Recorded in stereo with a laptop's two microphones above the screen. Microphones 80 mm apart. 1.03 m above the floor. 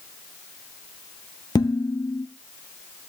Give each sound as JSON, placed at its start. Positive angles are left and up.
{"t": 1.6, "sound": "dishes clattering", "side_deg": 55, "distance_m": 0.9}